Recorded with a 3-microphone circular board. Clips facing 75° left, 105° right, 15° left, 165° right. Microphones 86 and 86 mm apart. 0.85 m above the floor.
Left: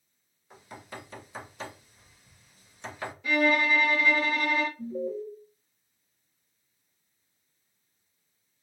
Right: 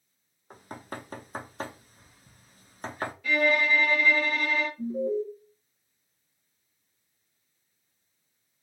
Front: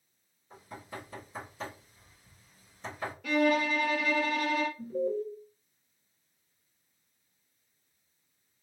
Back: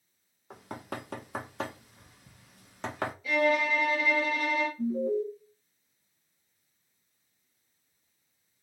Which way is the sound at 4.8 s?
95° right.